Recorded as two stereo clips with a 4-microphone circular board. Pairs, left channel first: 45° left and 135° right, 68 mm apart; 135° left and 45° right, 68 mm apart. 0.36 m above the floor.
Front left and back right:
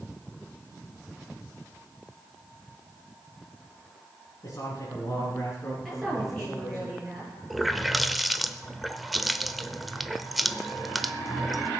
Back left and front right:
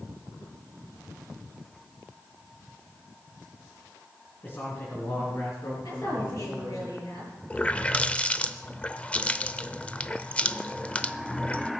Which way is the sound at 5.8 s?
135° left.